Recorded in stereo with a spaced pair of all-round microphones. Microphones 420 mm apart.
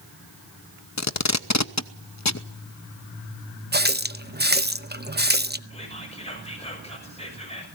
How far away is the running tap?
About 0.6 m.